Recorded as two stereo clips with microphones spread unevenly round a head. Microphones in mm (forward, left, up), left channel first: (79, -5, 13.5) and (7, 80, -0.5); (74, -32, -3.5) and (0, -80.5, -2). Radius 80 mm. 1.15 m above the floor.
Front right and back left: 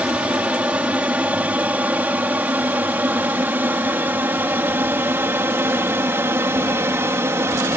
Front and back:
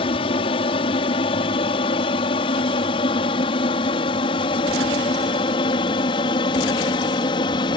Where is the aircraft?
55° left; by 7.8 s 70° left.